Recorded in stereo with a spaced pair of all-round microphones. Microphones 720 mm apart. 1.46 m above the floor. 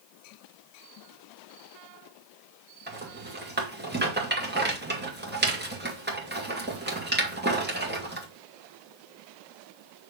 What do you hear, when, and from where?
2.9 s a rattle: 15° right (ahead or behind), 1.4 m